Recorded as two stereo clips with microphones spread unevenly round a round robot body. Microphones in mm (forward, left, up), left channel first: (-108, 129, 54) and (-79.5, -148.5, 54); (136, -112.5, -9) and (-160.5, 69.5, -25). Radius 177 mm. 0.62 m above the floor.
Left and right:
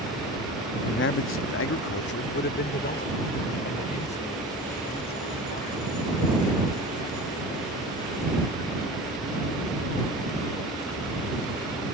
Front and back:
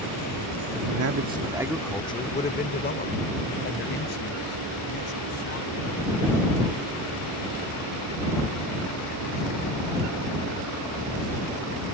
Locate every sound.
0.9 s a man speaking: 135° left; by 6.4 s 20° left